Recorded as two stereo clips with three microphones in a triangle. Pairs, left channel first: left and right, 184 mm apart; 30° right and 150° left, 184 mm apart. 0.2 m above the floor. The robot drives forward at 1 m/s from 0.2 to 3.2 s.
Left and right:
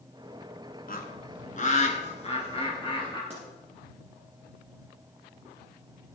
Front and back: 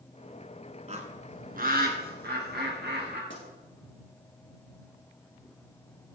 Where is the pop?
40° right, 6 m.